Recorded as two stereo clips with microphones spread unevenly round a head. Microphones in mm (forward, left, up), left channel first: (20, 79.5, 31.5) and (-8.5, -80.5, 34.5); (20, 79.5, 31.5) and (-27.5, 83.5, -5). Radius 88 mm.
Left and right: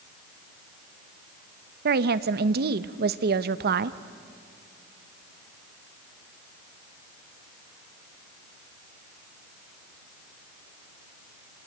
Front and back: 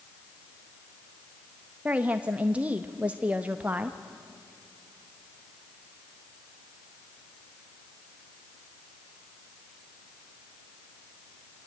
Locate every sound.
1.9 s a woman speaking: 125° right, 0.7 m